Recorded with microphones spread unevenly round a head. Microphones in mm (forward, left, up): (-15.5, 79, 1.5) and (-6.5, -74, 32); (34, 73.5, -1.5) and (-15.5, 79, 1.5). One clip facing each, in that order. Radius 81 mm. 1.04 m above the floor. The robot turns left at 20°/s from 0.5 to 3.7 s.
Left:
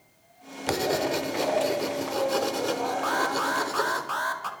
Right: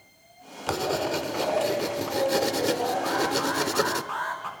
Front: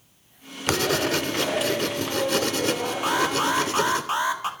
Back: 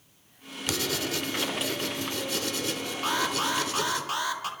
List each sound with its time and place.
0.7 s writing: 10° left, 0.9 m; by 4.0 s 55° right, 0.9 m
3.0 s an alarm: 70° left, 2.5 m; by 4.5 s 55° left, 2.5 m